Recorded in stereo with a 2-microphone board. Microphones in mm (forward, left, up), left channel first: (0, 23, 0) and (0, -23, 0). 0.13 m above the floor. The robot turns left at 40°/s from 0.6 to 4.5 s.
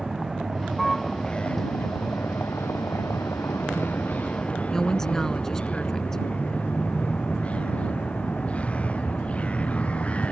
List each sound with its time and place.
0.0 s a vehicle: 175° right; by 10.3 s 30° left
4.7 s a woman speaking: 10° left (ahead or behind)